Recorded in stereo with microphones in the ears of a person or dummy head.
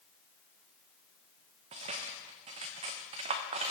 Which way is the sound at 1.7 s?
25° right (ahead or behind).